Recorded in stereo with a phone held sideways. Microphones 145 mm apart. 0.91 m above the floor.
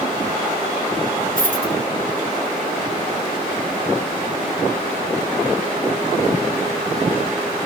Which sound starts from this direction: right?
A dropped coin, at 1.4 s.